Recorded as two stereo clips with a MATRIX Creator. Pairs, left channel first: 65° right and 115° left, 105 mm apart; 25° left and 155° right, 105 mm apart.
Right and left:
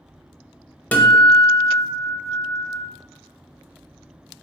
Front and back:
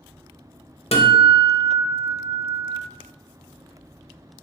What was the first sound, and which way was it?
A guitar, 5° left.